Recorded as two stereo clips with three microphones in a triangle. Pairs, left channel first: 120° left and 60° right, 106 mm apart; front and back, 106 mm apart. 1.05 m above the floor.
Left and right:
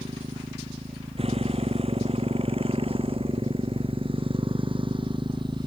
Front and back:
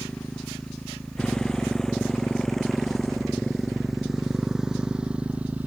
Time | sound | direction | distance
0.0 | a motorcycle | 80° right | ?